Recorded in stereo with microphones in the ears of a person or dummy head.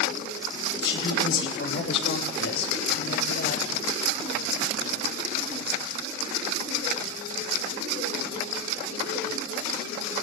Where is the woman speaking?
90° left, 6 m; by 3.6 s 80° left, 9 m.